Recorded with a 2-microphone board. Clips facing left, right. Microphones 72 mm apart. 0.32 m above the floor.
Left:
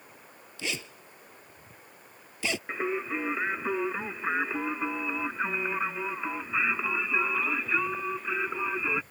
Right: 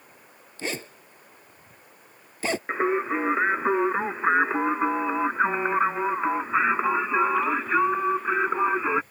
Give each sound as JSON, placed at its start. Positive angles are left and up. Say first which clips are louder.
{"t": 0.6, "sound": "a zipper", "louder": "right 4 dB", "side_deg": -40}
{"t": 2.7, "sound": "singing", "louder": "right 8 dB", "side_deg": -40}